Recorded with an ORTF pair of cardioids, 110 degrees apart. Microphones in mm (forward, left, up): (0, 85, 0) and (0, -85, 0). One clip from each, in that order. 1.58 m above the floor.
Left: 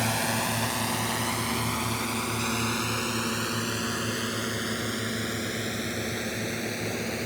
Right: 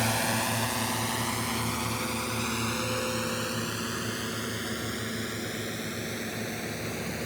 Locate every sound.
0.0 s a drone: straight ahead; by 7.3 s 20° left